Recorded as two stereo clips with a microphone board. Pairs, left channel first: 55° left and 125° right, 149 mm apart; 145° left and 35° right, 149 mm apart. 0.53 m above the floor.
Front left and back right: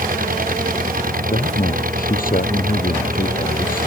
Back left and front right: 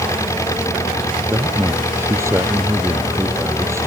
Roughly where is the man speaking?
Ahead left.